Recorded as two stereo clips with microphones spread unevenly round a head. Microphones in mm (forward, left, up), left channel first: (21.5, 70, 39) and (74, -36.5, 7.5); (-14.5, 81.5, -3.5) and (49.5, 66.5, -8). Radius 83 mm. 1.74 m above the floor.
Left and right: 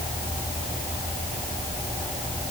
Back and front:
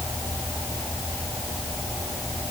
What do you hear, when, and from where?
Only background noise.